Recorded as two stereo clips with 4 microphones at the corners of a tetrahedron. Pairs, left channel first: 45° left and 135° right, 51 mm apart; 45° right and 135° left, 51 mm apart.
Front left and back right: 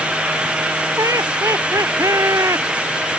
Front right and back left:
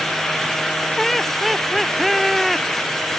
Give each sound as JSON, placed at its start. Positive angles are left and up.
{"t": 1.0, "sound": "laughter", "azimuth_deg": -130}